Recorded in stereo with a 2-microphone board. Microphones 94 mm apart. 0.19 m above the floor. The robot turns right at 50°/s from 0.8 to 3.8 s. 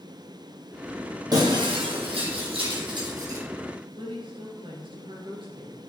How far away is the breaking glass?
About 3 m.